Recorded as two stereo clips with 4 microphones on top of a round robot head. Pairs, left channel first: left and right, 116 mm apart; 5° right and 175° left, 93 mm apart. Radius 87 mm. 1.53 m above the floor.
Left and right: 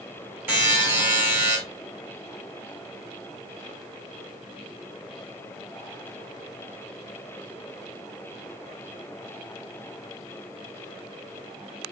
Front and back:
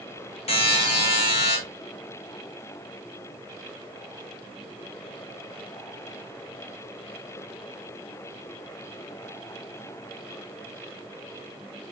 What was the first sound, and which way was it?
A buzzer, 15° right.